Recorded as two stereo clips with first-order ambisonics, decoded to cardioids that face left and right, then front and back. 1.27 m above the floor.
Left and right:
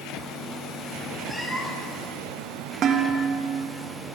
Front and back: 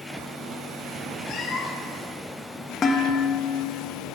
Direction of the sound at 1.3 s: 15° left.